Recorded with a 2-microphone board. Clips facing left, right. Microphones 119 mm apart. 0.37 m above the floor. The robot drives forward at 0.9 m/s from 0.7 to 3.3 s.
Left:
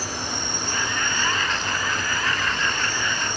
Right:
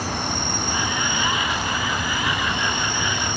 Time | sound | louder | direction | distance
0.0 | an insect | right 4 dB | 65° right (ahead or behind) | 4.5 m